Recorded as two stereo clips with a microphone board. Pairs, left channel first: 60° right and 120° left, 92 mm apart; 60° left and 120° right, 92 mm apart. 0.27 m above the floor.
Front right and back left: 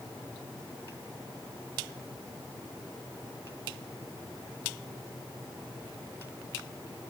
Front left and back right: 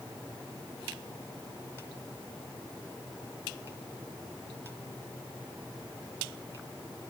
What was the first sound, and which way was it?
Only background noise.